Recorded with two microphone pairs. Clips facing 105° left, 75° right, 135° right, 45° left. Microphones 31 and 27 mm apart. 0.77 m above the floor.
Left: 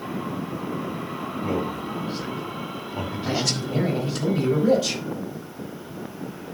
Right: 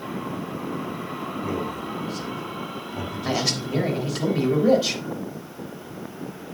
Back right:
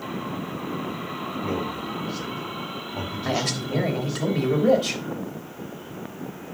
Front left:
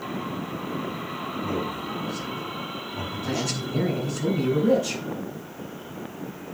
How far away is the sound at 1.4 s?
About 2.5 m.